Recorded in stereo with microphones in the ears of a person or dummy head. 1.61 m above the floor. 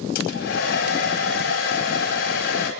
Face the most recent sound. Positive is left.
turn(degrees=65)  # may be behind; listen again after turning